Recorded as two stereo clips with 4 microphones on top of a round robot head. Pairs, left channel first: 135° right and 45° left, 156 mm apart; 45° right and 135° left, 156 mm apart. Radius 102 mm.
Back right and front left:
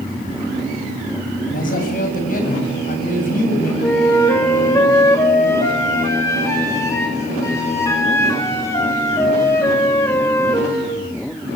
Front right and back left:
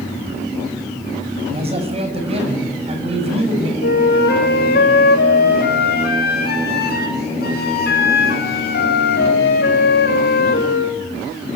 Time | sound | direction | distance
1.5 | a man speaking | 170° right | 8 m
3.8 | a flute | 65° right | 6 m